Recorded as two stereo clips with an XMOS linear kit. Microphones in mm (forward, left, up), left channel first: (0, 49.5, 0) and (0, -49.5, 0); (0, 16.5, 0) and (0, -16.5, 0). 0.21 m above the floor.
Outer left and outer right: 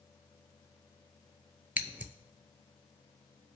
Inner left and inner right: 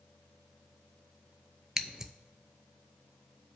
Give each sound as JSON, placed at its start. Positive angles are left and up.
{"t": 1.8, "sound": "scissors", "side_deg": -15, "distance_m": 0.5}